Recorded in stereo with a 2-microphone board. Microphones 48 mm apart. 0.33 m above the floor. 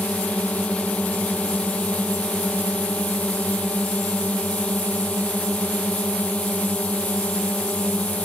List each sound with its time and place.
0.0 s a drone: 30° left (ahead or behind)